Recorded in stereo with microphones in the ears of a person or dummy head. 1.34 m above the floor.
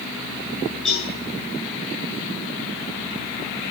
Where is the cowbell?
5° left (ahead or behind), 10 m.